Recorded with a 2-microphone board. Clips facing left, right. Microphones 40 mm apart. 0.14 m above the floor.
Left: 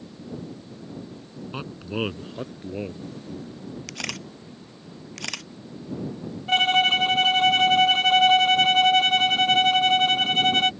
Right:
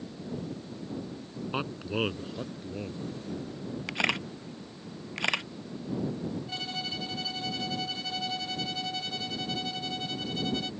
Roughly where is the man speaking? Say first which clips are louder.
Left 1 dB; centre.